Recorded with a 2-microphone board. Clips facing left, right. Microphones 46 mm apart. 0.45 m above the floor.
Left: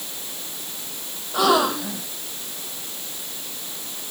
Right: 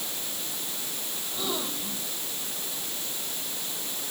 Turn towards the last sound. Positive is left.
turn(degrees=85)